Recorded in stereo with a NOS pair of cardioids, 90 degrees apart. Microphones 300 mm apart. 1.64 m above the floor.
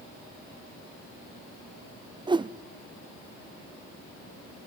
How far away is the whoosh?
About 0.6 m.